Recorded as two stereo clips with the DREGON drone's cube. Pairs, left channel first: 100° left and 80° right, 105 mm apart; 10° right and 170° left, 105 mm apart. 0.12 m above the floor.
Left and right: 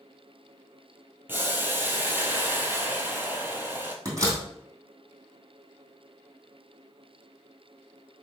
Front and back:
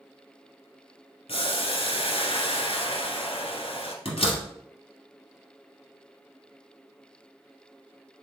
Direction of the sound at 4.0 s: 20° right.